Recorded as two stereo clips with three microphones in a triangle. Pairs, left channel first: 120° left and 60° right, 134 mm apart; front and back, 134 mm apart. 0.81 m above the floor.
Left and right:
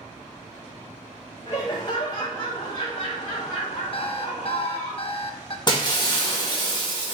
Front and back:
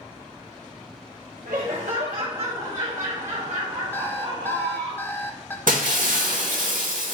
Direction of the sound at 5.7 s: 175° left.